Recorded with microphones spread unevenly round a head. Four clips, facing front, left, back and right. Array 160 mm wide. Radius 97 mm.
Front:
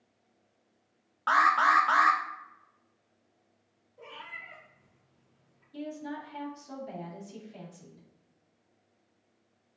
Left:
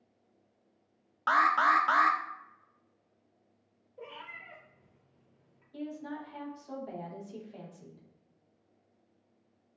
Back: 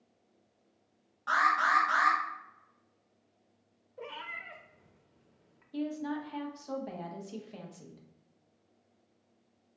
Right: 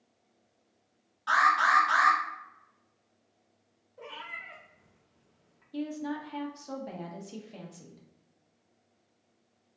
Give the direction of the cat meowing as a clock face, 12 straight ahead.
6 o'clock.